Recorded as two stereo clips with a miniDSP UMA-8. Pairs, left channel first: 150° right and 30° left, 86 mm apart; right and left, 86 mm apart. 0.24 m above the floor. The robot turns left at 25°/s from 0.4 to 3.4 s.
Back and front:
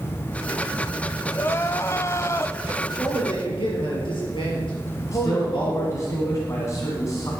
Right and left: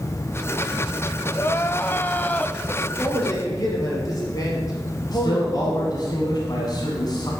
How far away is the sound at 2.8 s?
About 4 m.